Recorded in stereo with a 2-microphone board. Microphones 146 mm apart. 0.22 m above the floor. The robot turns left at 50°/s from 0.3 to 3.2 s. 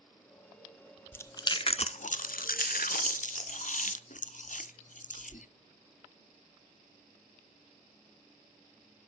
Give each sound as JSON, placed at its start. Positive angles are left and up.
{"t": 1.1, "sound": "chewing", "side_deg": 15, "distance_m": 0.5}